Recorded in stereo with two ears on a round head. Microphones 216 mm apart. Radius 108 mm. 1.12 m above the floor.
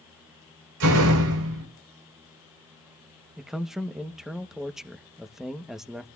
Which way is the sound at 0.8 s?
65° right (ahead or behind).